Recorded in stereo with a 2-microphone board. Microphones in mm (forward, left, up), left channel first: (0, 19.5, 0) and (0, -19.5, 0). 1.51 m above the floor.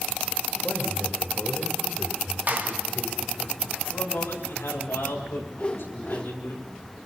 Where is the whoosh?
30° left (ahead or behind), 1.6 m.